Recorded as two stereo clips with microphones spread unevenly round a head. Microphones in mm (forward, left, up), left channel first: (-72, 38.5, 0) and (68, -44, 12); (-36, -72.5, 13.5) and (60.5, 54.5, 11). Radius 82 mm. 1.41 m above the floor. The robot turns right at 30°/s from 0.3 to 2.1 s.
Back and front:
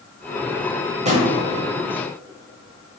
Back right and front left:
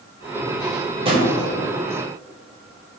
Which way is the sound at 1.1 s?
Straight ahead.